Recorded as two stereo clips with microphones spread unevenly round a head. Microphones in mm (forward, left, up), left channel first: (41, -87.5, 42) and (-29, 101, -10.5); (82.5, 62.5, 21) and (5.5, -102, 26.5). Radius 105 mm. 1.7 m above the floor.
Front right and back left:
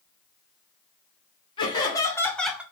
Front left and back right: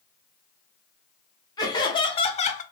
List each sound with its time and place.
1.6 s laughter: 5° right, 1.1 m; by 2.6 s 20° left, 0.5 m